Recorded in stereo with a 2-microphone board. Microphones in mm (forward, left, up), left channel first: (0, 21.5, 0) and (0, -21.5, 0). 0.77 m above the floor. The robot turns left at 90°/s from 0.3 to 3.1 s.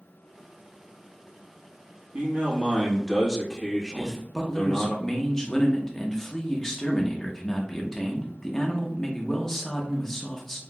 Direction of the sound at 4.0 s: 10° left (ahead or behind).